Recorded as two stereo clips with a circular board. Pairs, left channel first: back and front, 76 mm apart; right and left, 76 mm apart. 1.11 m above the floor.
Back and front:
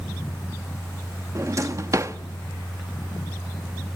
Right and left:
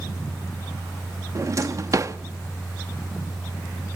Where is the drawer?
45° left, 0.9 m.